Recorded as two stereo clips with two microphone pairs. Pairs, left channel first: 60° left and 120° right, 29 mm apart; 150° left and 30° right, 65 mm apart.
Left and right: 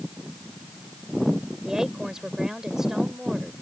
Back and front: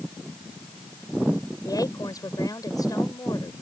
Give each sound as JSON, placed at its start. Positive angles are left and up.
{"t": 1.6, "sound": "a woman speaking", "azimuth_deg": 165}